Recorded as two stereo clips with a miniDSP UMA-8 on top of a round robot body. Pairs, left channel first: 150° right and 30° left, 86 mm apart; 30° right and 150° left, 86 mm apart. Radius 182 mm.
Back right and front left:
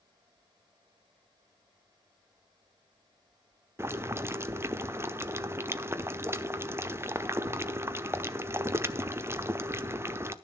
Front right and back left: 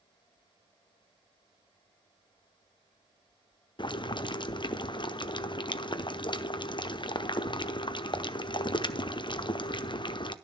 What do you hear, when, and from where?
3.8 s boiling: 25° right, 1.1 m